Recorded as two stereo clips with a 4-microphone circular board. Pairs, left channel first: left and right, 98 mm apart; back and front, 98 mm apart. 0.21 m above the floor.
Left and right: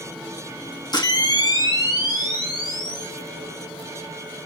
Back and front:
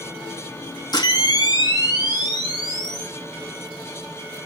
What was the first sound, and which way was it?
A camera shutter, 135° left.